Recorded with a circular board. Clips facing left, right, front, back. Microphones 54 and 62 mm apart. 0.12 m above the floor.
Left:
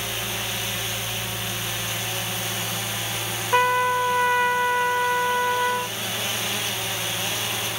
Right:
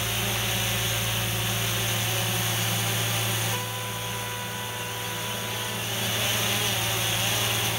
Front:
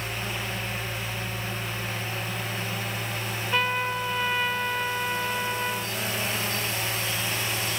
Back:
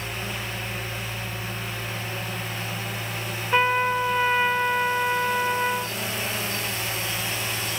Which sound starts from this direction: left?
A trumpet, at 3.5 s.